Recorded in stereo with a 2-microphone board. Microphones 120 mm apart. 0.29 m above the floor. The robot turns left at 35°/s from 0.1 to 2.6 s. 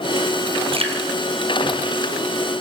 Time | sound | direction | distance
0.7 | dripping | 50° right (ahead or behind) | 3 m